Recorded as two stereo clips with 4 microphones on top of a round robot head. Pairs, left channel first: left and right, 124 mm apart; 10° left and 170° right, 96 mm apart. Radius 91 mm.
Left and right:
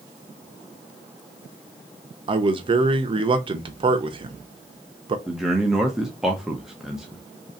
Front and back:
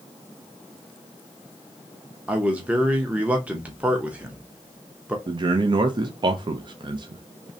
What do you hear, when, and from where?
2.3 s a man speaking: 100° right, 0.6 m
5.3 s a man speaking: 175° right, 0.6 m